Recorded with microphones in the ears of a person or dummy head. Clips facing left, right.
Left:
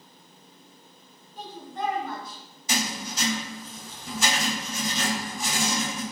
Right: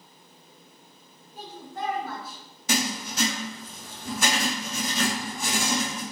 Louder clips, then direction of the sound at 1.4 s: Left 2 dB; centre (ahead or behind).